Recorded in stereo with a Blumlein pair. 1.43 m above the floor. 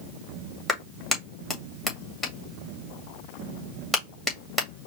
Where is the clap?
5° left, 2 m.